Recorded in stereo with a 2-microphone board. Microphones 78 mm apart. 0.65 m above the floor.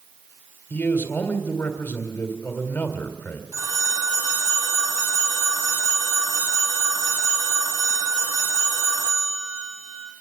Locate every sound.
0.7 s a man speaking: 25° left (ahead or behind), 2.5 m
3.5 s a phone ringing: 45° right (ahead or behind), 3.5 m